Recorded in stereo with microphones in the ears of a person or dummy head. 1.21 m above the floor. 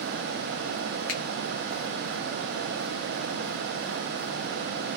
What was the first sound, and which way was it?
A finger snap, 40° left (ahead or behind).